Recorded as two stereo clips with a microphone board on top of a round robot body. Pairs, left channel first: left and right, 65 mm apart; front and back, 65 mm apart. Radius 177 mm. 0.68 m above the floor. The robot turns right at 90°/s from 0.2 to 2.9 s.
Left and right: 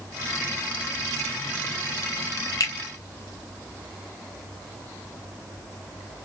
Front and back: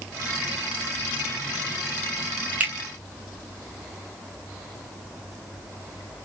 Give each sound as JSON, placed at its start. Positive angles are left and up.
{"t": 2.6, "sound": "a finger snap", "azimuth_deg": 110, "distance_m": 1.5}